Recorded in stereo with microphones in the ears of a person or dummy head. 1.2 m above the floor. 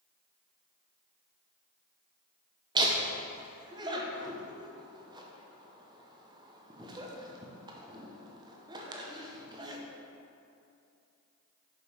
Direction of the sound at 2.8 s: 20° right (ahead or behind).